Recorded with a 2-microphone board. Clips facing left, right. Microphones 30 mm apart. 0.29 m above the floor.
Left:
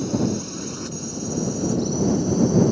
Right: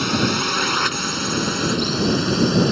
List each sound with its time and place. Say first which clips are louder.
0.0 s a drone: right 4 dB; 65° right (ahead or behind); by 2.7 s 60° right (ahead or behind)